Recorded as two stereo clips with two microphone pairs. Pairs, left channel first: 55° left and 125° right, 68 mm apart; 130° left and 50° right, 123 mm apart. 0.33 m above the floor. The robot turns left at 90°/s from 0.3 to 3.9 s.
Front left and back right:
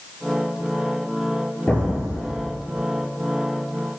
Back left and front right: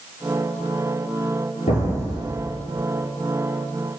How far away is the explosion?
About 3.5 m.